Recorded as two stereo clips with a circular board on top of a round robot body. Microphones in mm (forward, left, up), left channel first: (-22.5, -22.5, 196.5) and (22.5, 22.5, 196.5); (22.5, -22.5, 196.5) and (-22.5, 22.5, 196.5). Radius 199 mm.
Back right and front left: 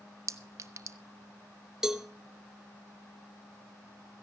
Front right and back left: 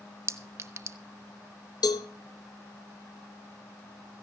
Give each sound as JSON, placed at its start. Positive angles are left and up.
{"t": 0.3, "sound": "a clink", "azimuth_deg": 90, "distance_m": 0.8}
{"t": 1.8, "sound": "a cowbell", "azimuth_deg": -35, "distance_m": 0.6}